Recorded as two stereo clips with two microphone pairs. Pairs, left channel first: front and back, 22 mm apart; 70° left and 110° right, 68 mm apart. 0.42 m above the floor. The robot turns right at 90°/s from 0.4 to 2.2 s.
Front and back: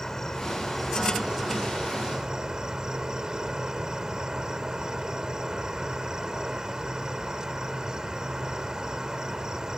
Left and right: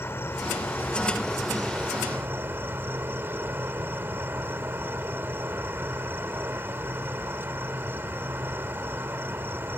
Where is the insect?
60° left; by 9.8 s 140° right.